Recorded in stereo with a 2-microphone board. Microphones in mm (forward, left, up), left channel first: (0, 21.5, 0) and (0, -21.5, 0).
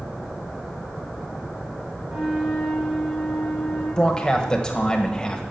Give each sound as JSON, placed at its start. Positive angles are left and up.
{"t": 2.0, "sound": "a flute", "side_deg": -25, "distance_m": 8.5}
{"t": 4.0, "sound": "a man speaking", "side_deg": 15, "distance_m": 1.5}